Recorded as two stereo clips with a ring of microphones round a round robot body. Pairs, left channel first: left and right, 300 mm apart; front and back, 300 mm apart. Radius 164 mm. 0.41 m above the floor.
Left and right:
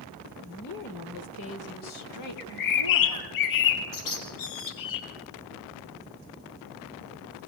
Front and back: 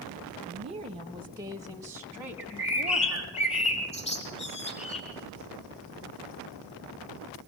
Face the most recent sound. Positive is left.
turn(degrees=75)